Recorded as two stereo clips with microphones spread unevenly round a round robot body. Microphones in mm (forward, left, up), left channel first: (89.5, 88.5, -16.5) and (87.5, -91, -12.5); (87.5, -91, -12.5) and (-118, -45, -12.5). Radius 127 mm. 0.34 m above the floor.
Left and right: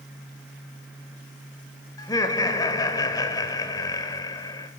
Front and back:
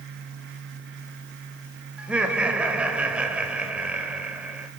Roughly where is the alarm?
No alarm in this recording.